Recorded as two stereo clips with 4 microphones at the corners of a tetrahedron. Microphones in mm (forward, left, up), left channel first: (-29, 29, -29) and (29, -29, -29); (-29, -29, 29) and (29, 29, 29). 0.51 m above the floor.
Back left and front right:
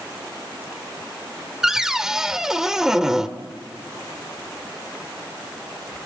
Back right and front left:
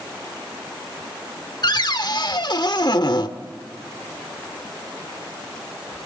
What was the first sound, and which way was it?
A cupboard door, 125° right.